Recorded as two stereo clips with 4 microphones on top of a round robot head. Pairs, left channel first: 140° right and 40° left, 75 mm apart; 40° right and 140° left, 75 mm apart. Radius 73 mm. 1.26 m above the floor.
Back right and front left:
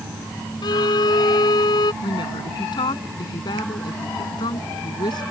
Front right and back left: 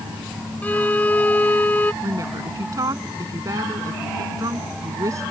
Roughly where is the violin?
Right.